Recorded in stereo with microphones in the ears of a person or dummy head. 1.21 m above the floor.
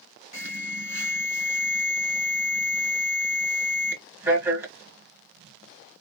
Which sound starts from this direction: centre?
An alarm, at 0.3 s.